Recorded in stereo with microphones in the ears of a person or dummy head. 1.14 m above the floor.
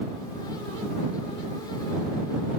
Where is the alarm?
No alarm in this recording.